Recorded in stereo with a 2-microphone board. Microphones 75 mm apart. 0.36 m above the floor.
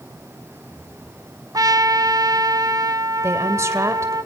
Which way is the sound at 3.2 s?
40° right (ahead or behind).